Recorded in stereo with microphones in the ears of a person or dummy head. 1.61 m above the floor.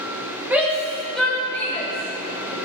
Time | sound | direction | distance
0.5 | a shout | 5° right (ahead or behind) | 2 m